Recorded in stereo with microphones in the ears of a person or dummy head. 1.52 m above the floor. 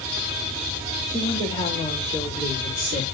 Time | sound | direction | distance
1.1 | a woman speaking | 70° right (ahead or behind) | 4 m